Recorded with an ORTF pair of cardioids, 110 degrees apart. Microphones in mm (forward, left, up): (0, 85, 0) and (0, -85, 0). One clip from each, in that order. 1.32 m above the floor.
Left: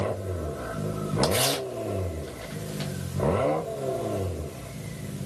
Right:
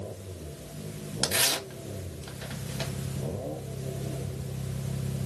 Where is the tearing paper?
15° right, 1.0 m.